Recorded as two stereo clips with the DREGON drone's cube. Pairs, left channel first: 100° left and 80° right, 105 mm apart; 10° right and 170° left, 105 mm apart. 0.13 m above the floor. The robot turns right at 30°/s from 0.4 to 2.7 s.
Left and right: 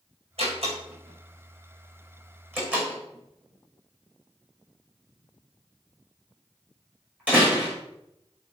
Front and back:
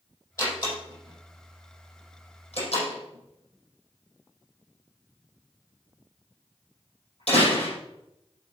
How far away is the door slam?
About 5 m.